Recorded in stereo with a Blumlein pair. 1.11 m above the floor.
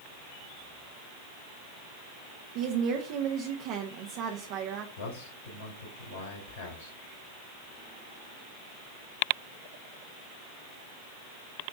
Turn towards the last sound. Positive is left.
turn(degrees=55)